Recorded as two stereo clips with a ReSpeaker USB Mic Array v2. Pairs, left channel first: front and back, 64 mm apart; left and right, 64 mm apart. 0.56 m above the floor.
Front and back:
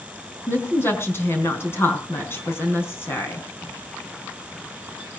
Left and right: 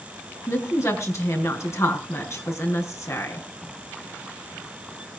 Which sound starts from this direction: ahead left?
A woman speaking, at 0.5 s.